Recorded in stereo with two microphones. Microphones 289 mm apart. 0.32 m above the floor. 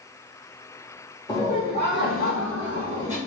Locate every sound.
1.3 s laughter: 15° left (ahead or behind), 1.0 m; by 3.2 s 60° left (ahead or behind), 2 m